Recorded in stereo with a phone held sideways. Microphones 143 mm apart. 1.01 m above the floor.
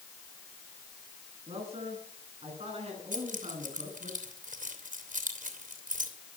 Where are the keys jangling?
65° right (ahead or behind), 3 m.